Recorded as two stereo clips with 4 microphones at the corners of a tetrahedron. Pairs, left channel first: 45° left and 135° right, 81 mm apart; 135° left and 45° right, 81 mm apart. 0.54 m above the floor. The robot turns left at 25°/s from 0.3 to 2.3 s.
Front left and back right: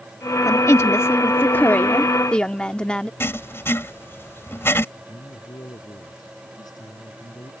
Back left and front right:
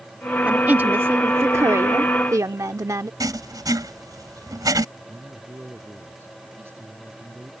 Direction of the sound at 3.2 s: 10° right.